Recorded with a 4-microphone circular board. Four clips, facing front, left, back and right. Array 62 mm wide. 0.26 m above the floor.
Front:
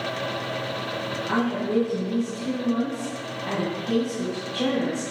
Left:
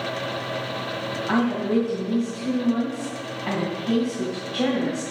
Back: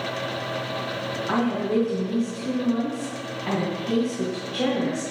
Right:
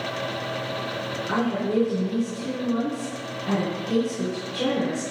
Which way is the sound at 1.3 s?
105° left.